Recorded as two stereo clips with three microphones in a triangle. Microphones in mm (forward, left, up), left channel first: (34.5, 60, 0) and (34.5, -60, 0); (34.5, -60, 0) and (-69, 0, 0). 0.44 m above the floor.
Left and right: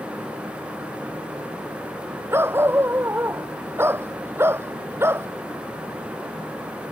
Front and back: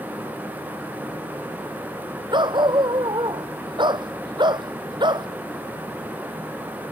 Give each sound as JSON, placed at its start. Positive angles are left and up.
{"t": 2.3, "sound": "a dog barking", "azimuth_deg": -160}